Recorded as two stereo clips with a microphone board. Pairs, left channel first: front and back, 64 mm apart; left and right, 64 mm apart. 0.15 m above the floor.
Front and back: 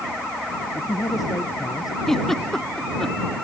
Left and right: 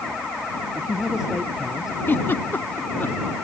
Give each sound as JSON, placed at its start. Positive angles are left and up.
{"t": 0.8, "sound": "a man speaking", "azimuth_deg": -10}
{"t": 2.1, "sound": "a giggle", "azimuth_deg": 80}